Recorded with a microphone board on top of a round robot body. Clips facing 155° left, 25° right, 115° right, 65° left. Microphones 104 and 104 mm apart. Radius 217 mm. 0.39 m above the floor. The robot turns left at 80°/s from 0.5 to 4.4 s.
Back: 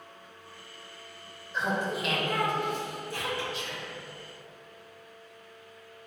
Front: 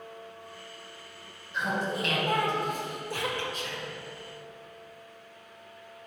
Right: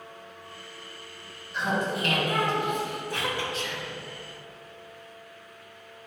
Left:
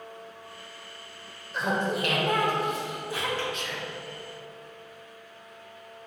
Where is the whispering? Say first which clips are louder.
Front 1 dB, right 1 dB; 60° right, 2.5 m; by 4.0 s 95° right, 2.5 m.